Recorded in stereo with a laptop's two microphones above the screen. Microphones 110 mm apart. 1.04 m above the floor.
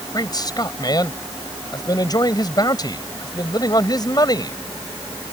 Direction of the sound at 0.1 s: 40° left (ahead or behind).